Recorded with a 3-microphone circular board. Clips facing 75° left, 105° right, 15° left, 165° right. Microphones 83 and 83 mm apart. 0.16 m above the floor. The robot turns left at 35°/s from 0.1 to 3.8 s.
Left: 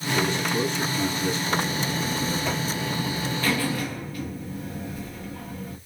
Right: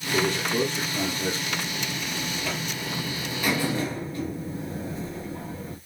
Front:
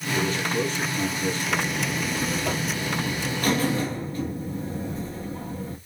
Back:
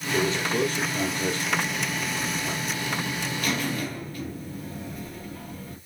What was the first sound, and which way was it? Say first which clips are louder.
A man speaking: right 1 dB, back 1 dB; 105° right.